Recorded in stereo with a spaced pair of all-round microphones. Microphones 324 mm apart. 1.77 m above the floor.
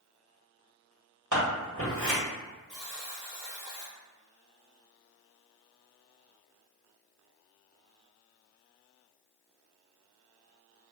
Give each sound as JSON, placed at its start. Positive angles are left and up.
{"t": 1.3, "sound": "scissors", "side_deg": -60, "distance_m": 1.6}
{"t": 2.7, "sound": "a buzzer", "side_deg": 35, "distance_m": 1.8}